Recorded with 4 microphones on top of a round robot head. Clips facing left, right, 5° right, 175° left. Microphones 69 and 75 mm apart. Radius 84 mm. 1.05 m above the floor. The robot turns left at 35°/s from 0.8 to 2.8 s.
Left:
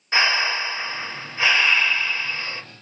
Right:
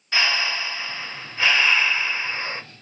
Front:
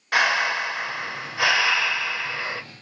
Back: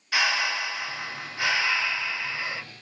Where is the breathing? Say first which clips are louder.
Left 3 dB, front 5 dB; 30° left, 0.7 m; by 2.6 s 35° right, 0.7 m.